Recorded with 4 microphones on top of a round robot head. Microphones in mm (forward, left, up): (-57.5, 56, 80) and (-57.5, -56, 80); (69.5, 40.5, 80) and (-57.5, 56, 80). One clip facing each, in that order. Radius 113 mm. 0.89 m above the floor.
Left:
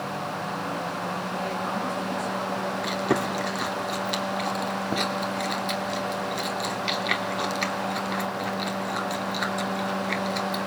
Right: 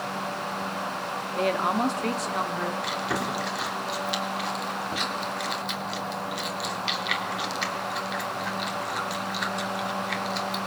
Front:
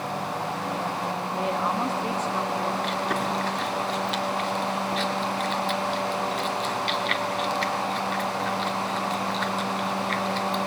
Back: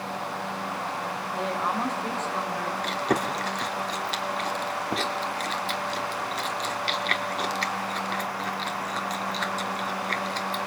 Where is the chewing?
125° left, 3 m.